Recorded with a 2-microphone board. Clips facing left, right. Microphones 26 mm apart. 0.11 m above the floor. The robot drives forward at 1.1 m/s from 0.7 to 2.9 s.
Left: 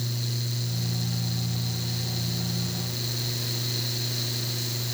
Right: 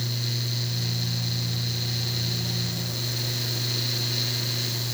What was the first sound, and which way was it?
Only background noise.